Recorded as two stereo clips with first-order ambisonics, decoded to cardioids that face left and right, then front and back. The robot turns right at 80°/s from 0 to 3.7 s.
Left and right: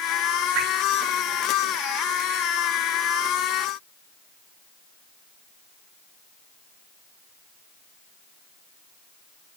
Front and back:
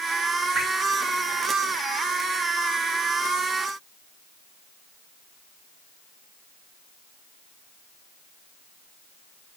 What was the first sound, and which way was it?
Dripping, 95° right.